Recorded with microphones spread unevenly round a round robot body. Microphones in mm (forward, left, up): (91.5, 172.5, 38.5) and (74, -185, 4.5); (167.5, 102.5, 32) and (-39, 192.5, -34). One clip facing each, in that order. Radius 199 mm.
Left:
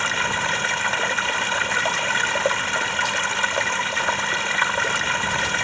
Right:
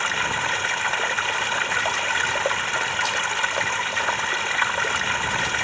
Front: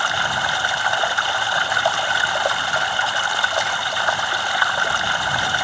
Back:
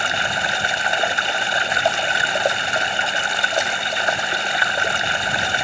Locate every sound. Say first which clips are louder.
0.0 s running water: left 2 dB, back 1 dB; 90° left